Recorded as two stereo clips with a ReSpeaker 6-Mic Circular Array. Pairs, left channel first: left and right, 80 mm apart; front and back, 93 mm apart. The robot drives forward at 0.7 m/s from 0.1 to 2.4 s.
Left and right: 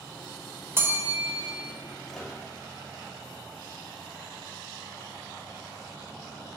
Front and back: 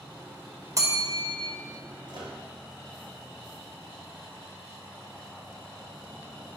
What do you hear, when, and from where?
0.8 s a bell: 140° right, 1.1 m; by 1.5 s 155° right, 1.5 m
2.1 s a microwave: 175° left, 1.8 m